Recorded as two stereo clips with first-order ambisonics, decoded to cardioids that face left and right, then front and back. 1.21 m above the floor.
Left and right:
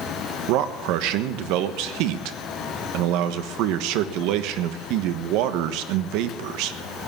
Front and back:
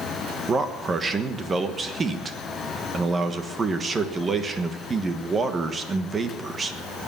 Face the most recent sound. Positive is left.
turn(degrees=-110)